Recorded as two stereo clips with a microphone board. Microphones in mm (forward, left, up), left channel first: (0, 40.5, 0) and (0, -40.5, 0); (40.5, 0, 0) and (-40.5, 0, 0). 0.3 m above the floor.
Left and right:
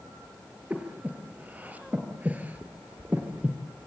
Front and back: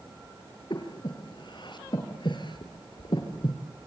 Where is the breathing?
20° right, 3 m.